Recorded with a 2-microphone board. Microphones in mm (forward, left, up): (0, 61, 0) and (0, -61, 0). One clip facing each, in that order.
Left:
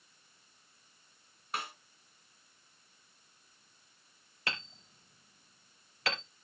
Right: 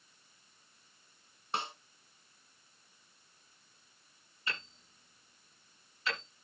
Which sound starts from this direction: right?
A snare drum, at 1.5 s.